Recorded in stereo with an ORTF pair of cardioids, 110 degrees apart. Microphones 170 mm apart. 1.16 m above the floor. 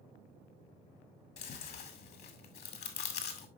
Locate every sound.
1.4 s chewing: 70° left, 2 m